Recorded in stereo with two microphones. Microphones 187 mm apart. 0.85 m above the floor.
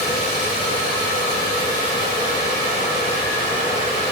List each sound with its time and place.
Only background noise.